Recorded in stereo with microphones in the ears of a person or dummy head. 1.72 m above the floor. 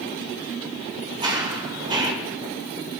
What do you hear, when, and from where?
1.2 s running footsteps: 25° right (ahead or behind), 2.5 m